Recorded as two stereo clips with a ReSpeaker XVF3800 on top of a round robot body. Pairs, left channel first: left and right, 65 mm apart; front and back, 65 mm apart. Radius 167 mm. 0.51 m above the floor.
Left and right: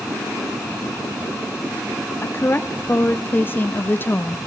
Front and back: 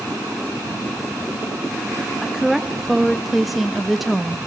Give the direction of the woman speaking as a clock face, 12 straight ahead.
9 o'clock.